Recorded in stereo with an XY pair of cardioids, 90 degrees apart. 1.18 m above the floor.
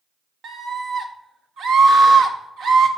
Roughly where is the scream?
Right.